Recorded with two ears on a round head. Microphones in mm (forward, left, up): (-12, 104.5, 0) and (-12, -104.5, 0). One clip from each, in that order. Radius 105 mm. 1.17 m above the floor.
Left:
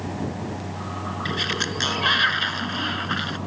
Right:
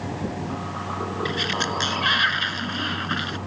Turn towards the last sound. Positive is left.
turn(degrees=0)  # may be behind; listen again after turning